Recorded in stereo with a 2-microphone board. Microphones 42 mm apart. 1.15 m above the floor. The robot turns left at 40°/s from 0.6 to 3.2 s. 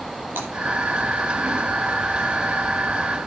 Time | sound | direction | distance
0.4 | breaking glass | 65° right (ahead or behind) | 9 m